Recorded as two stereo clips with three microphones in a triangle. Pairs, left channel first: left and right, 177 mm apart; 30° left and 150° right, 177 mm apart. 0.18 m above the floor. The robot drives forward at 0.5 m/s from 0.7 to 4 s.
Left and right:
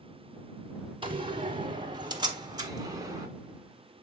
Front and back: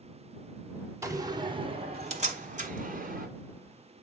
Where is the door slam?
95° right, 1.0 m; by 3.3 s 155° right, 1.6 m.